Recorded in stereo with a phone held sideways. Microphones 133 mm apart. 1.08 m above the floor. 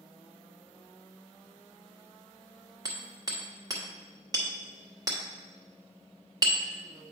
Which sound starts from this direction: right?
Hammering, at 2.9 s.